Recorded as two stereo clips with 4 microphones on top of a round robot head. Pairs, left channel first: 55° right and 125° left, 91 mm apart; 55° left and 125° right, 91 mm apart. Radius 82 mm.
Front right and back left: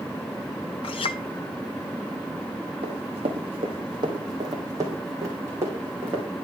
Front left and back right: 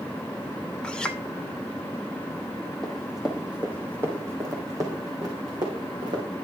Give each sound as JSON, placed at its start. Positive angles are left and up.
{"t": 0.8, "sound": "a clink", "azimuth_deg": -25, "distance_m": 0.9}
{"t": 2.8, "sound": "running footsteps", "azimuth_deg": 140, "distance_m": 2.0}